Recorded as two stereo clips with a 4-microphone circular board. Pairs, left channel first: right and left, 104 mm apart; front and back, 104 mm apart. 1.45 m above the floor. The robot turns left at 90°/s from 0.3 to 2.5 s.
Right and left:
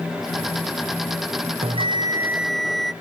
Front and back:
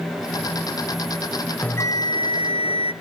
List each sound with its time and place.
1.6 s a bell: 80° left, 0.5 m; by 2.9 s straight ahead, 0.5 m